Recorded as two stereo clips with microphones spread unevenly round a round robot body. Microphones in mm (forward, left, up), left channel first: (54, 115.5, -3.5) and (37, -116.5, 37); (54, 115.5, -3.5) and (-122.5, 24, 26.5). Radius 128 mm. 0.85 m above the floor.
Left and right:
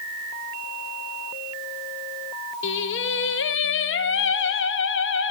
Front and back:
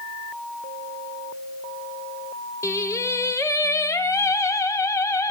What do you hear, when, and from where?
2.6 s singing: 95° left, 0.8 m